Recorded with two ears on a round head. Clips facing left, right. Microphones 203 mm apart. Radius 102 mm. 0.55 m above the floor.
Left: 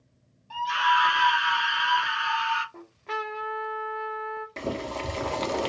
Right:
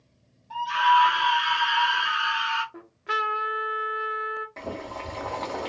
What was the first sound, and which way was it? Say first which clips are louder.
A scream: right 4 dB; 35° left (ahead or behind).